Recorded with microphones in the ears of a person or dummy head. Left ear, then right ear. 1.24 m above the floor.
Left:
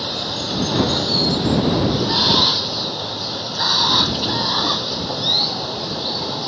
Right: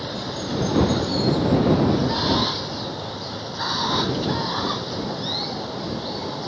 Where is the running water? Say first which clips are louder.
Left 6 dB; 30° left (ahead or behind).